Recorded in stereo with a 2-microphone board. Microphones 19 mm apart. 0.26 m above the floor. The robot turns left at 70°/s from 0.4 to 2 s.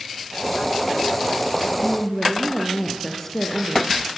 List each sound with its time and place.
1.8 s a woman speaking: 35° left (ahead or behind), 4.5 m; by 3.9 s 20° left (ahead or behind), 4.5 m